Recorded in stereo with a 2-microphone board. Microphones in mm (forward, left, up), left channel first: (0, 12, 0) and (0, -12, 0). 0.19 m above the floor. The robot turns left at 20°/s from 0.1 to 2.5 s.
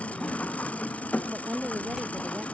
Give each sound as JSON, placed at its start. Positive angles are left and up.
{"t": 0.0, "sound": "an engine running", "azimuth_deg": 115}
{"t": 1.3, "sound": "a woman speaking", "side_deg": -55}